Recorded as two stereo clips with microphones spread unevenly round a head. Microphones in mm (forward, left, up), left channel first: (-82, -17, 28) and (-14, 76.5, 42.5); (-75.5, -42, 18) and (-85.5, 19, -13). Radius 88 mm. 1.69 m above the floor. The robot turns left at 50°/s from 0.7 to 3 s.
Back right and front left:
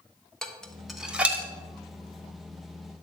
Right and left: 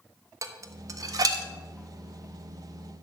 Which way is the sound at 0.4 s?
145° left.